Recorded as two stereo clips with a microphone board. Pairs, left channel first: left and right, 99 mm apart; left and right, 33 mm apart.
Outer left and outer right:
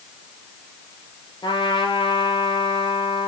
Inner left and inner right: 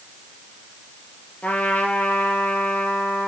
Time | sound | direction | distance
1.4 | a trumpet | 55° left (ahead or behind) | 3.5 m